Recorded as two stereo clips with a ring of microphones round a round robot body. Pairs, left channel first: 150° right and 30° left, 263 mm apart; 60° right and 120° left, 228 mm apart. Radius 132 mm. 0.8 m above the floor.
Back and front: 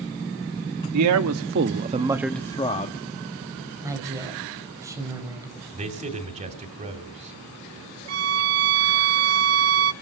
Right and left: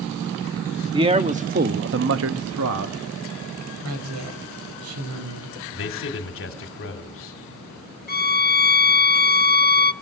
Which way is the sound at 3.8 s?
110° left.